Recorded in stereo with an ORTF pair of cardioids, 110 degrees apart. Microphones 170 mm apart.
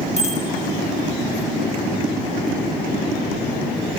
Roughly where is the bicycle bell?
Ahead left.